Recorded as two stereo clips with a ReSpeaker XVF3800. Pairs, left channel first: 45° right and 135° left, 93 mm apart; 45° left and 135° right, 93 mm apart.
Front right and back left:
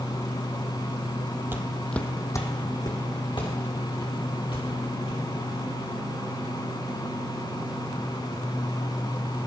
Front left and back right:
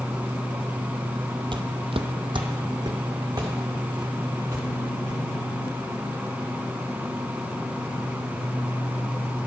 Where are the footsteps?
160° right, 0.7 m; by 5.2 s 75° right, 4 m.